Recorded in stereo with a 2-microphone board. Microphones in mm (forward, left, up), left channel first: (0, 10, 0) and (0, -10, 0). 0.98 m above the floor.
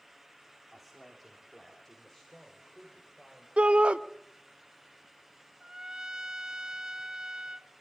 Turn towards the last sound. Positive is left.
turn(degrees=-30)  # may be behind; listen again after turning